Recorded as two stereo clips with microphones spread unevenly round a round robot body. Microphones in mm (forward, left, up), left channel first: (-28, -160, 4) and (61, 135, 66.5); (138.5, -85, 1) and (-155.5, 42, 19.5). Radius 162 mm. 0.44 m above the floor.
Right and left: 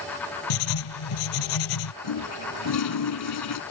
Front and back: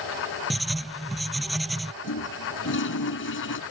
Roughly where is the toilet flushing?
Right.